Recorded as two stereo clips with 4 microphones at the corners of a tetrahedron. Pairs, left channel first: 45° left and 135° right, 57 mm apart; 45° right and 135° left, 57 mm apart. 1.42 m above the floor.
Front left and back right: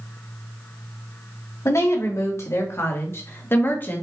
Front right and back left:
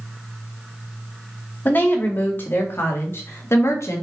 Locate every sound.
1.6 s a woman speaking: 15° left, 3 m; by 4.0 s 10° right, 2.0 m